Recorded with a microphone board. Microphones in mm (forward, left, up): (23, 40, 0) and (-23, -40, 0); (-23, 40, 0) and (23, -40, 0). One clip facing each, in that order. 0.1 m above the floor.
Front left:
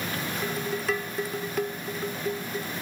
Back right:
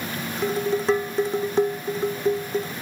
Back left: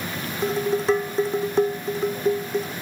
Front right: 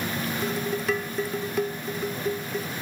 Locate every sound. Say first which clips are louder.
0.4 s dishes clattering: back right 9 dB, back left 8 dB; straight behind